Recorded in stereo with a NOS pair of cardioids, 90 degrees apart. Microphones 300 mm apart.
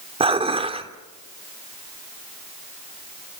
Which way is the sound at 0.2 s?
20° right.